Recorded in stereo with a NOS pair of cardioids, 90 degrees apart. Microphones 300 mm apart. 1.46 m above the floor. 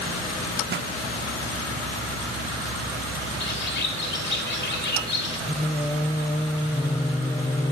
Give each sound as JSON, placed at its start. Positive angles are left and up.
{"t": 0.7, "sound": "a pop", "azimuth_deg": -35, "distance_m": 1.3}
{"t": 3.4, "sound": "a bird", "azimuth_deg": 40, "distance_m": 2.0}
{"t": 5.5, "sound": "singing", "azimuth_deg": 15, "distance_m": 0.9}